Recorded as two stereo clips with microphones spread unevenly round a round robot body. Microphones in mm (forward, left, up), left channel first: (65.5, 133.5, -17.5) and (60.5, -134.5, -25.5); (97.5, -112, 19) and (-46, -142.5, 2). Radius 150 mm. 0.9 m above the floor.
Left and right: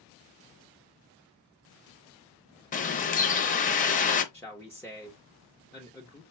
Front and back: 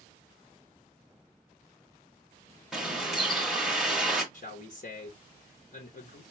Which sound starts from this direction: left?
A bird, at 2.7 s.